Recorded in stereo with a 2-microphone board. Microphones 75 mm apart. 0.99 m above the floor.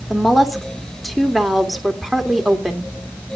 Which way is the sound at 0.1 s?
Centre (ahead or behind).